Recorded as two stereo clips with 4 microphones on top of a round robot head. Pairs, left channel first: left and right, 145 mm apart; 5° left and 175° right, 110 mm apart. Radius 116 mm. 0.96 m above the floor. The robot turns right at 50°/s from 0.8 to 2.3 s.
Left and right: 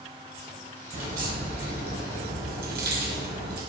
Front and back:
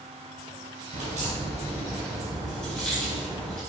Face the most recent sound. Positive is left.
turn(degrees=-80)